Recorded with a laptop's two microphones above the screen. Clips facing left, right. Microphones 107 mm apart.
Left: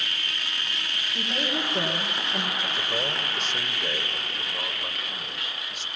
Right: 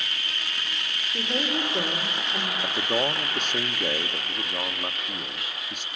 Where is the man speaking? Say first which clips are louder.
Right 4 dB; 55° right (ahead or behind), 1.3 m.